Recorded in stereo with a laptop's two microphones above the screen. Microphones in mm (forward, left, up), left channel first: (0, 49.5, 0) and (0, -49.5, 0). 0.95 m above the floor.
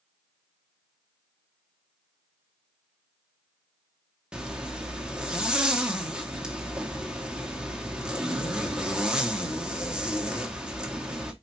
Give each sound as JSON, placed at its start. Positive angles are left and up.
{"t": 4.3, "sound": "a zipper", "side_deg": -10, "distance_m": 1.0}